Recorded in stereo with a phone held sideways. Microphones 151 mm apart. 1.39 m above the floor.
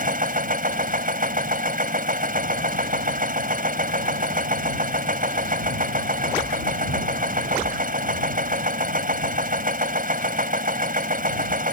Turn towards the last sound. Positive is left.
turn(degrees=-65)  # may be behind; listen again after turning